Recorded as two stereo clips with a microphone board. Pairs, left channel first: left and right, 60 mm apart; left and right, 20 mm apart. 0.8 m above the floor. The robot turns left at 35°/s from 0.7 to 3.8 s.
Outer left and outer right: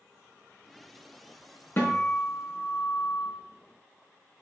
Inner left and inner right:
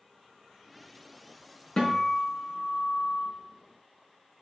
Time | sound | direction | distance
1.8 | a guitar | 145° left | 4 m